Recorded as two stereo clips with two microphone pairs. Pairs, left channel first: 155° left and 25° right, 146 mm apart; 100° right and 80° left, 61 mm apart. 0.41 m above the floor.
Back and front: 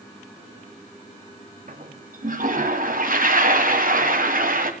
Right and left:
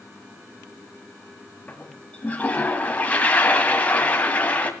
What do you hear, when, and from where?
1.7 s a toilet flushing: 35° right, 1.9 m